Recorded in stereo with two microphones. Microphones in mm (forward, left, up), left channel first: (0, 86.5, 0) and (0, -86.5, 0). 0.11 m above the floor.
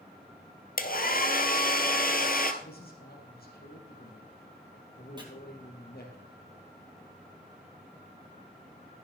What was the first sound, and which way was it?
A hair dryer, 55° left (ahead or behind).